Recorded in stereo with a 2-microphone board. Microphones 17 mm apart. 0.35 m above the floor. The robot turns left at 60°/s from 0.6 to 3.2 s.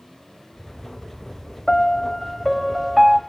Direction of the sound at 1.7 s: 55° left.